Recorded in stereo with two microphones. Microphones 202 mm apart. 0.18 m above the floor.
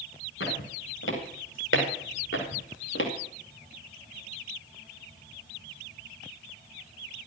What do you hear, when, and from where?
0.4 s footsteps: 90° left, 7.5 m; by 3.1 s 85° left, 4 m